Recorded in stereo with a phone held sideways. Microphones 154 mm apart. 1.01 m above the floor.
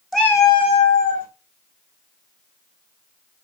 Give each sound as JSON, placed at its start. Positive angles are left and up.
{"t": 0.1, "sound": "a cat meowing", "side_deg": 0, "distance_m": 0.6}